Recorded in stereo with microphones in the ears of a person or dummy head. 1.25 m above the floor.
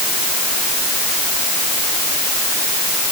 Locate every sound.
Only background noise.